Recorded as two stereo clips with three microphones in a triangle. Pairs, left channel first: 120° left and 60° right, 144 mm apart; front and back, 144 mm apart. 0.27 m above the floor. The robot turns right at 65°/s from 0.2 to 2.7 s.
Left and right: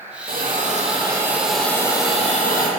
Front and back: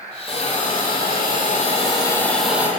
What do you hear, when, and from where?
0.3 s a hiss: 50° right, 9 m; by 2.7 s 105° left, 9 m